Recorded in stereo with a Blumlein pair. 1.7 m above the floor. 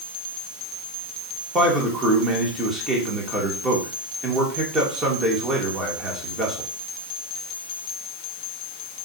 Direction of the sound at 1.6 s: 15° right.